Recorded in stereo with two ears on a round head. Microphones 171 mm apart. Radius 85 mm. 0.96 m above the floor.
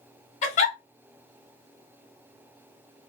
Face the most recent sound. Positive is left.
turn(degrees=35)  # may be behind; listen again after turning